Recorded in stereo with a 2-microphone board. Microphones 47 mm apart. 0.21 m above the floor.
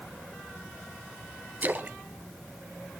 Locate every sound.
1.6 s a splash: 40° right (ahead or behind), 1.0 m